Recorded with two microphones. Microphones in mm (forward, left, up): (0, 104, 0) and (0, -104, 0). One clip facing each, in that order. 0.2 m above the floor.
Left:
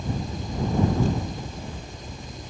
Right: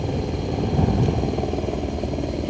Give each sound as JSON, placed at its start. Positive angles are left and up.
{"t": 0.0, "sound": "a helicopter", "side_deg": -70}